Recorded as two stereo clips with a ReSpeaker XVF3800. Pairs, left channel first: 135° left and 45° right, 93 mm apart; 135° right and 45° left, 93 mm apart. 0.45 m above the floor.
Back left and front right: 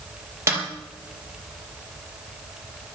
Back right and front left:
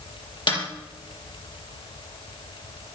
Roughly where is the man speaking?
No man speaking in this recording.